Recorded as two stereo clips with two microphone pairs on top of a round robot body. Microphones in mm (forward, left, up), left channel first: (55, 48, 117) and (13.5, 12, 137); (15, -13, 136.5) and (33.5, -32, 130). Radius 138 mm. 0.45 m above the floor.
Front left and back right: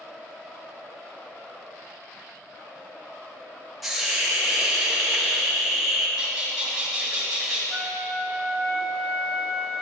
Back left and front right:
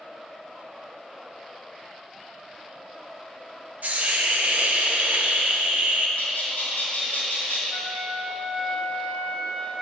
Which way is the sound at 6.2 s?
135° left.